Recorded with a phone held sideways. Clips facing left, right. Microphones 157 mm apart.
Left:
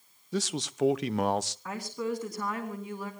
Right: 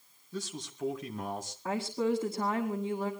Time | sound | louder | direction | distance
0.3 | a man speaking | left 8 dB | 80° left | 0.8 m
1.6 | a woman speaking | right 9 dB | 25° right (ahead or behind) | 2 m